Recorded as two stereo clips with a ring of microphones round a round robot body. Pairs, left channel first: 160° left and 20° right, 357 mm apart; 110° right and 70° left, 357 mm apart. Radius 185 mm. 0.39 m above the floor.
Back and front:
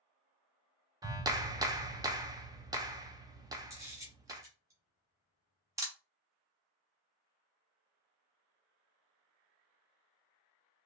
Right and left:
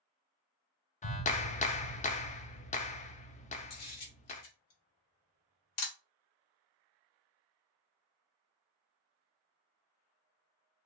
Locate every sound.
1.0 s a clap: 85° right, 0.6 m
3.7 s a camera shutter: 100° right, 1.4 m